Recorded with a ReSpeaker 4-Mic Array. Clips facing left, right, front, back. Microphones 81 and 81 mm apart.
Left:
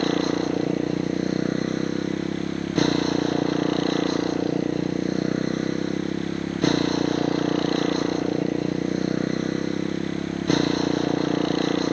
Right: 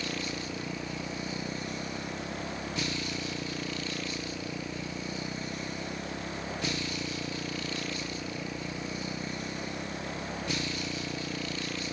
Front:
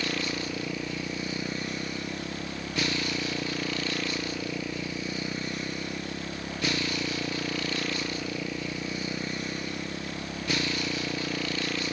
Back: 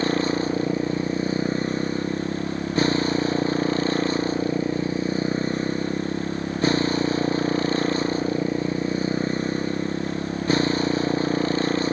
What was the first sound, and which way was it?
A motorcycle, 125° left.